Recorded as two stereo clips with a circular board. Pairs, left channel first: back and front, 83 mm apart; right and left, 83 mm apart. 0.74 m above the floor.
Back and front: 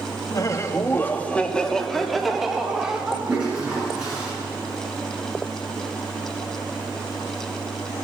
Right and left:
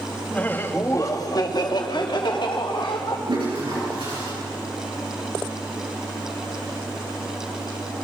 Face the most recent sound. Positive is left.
turn(degrees=80)